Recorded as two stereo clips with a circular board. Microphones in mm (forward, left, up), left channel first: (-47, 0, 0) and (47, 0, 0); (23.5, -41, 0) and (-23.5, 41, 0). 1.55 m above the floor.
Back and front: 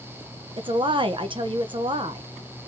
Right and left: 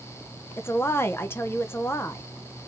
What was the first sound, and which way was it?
A woman speaking, straight ahead.